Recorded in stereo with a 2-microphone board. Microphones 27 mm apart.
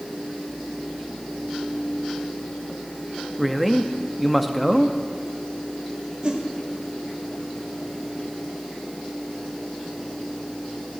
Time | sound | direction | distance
3.4 | a man speaking | 5° left (ahead or behind) | 0.6 m
6.2 | a whoosh | 35° right (ahead or behind) | 1.7 m